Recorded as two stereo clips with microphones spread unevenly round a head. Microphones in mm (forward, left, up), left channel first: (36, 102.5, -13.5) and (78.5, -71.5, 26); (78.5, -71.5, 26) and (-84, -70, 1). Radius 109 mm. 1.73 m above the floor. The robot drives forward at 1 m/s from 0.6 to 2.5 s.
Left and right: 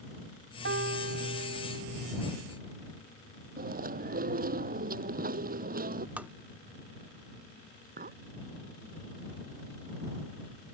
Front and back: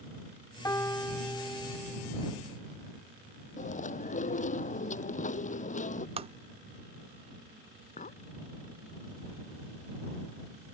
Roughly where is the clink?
Ahead right.